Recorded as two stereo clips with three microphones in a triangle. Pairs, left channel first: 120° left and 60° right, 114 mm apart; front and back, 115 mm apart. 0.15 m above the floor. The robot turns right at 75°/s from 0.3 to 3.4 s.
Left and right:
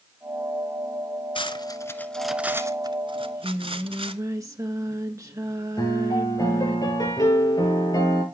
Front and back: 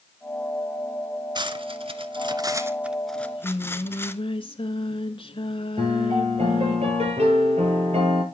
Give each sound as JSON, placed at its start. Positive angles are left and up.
{"t": 1.4, "sound": "cutlery clinking", "azimuth_deg": 140, "distance_m": 1.0}
{"t": 3.1, "sound": "singing", "azimuth_deg": -30, "distance_m": 1.6}
{"t": 5.8, "sound": "a piano", "azimuth_deg": 175, "distance_m": 4.0}